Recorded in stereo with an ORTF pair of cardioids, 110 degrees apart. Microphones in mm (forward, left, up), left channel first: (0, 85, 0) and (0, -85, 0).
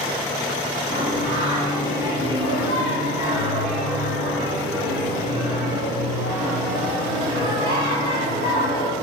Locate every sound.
0.9 s singing: 60° left, 3.5 m